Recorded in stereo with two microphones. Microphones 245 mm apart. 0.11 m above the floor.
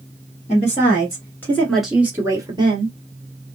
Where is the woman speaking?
25° left (ahead or behind), 1.6 m; by 3.0 s 25° right (ahead or behind), 1.6 m.